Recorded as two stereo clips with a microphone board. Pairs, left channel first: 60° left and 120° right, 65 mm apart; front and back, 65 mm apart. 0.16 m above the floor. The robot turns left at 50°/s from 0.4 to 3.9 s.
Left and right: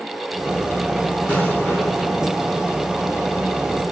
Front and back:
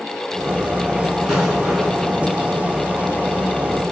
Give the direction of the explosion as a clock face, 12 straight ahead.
8 o'clock.